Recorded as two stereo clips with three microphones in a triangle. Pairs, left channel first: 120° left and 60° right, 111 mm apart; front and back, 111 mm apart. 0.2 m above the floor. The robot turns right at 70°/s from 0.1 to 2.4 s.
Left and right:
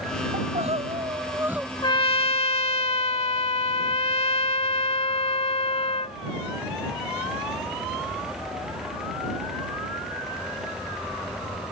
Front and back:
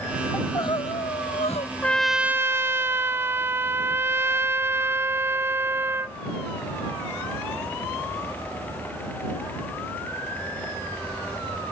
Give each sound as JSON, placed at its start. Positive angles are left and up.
{"t": 0.3, "sound": "crying", "azimuth_deg": -70}
{"t": 1.8, "sound": "a trumpet", "azimuth_deg": 75}